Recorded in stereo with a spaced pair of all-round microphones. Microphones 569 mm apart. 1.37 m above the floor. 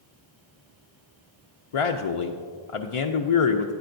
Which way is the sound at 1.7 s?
65° left (ahead or behind).